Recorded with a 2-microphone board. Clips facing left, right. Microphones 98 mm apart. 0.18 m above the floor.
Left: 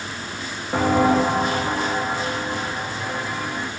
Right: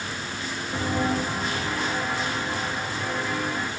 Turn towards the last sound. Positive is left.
turn(degrees=5)  # may be behind; listen again after turning